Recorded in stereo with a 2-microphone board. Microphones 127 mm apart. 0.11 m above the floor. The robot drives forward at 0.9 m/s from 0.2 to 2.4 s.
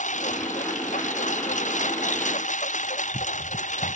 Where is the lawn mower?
80° left.